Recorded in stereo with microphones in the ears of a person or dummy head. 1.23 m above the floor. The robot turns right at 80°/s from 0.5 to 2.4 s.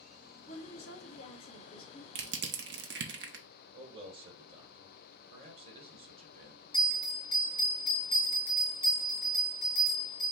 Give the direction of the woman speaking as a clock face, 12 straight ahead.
11 o'clock.